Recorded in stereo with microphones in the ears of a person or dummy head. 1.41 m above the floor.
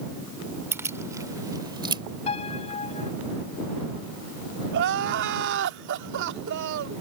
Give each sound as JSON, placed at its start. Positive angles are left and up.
{"t": 0.7, "sound": "keys jangling", "side_deg": -10}
{"t": 2.3, "sound": "a piano", "side_deg": 30}
{"t": 4.7, "sound": "crying", "side_deg": -60}